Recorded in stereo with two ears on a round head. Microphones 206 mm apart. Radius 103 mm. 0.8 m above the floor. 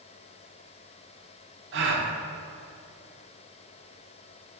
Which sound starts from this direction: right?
A gasp, at 1.7 s.